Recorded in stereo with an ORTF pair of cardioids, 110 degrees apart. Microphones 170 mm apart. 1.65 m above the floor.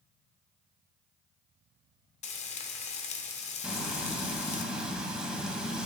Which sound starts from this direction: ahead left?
Frying, at 2.2 s.